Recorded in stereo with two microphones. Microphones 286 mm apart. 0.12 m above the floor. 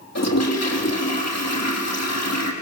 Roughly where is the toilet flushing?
Left.